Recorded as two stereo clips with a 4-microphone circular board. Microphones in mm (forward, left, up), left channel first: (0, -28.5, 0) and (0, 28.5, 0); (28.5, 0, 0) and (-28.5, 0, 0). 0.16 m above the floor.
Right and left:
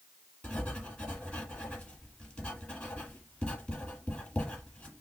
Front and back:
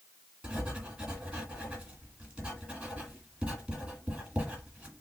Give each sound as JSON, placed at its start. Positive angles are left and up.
{"t": 0.4, "sound": "writing", "azimuth_deg": -130, "distance_m": 1.7}